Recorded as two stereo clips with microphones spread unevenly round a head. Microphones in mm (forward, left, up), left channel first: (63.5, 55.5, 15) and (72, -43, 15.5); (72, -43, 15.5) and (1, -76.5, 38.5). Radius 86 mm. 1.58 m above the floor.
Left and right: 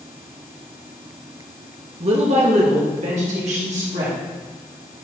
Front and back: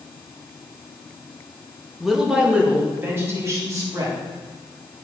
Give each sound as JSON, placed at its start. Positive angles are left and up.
{"t": 2.0, "sound": "a woman speaking", "azimuth_deg": -70, "distance_m": 1.7}